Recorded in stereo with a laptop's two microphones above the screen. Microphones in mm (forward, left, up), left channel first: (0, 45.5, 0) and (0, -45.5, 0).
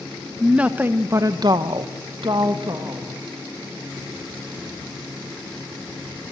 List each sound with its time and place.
0.4 s a woman speaking: 10° right (ahead or behind), 1.4 m; by 3.1 s 50° right (ahead or behind), 1.7 m